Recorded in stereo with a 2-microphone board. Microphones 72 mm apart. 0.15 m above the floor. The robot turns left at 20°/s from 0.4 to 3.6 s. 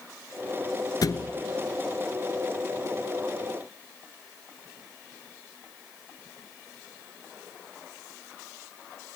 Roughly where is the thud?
Left.